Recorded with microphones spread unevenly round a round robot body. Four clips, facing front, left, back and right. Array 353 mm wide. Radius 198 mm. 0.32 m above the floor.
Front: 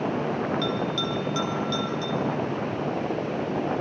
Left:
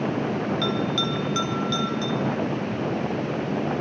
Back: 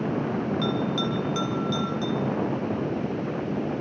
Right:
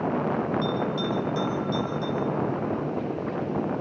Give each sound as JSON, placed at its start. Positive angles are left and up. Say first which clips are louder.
{"t": 0.6, "sound": "a bell", "louder": "left 1 dB, back 1 dB", "azimuth_deg": 95, "distance_m": 4.0}